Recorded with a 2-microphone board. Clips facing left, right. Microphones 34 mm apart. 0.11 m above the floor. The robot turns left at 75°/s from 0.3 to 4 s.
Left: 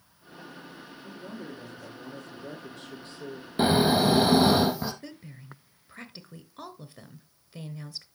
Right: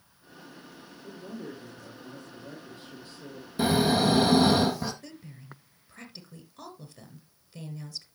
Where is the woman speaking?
25° left (ahead or behind), 1.3 m.